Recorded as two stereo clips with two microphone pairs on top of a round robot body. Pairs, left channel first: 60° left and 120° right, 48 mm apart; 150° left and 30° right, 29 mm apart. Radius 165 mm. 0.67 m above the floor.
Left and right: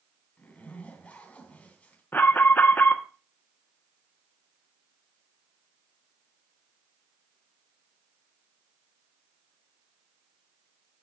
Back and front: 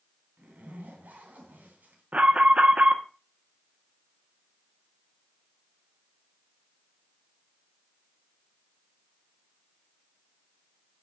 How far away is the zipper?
About 2 m.